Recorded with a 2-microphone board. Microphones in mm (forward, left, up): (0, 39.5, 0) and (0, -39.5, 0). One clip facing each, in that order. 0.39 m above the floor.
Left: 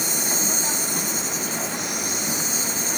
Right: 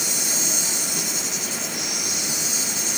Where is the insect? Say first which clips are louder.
Left 3 dB; 40° left (ahead or behind), 3 m.